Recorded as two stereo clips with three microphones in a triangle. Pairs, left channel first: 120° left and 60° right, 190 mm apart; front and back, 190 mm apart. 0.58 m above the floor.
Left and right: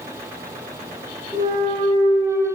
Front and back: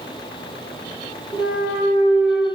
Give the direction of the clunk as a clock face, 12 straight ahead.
6 o'clock.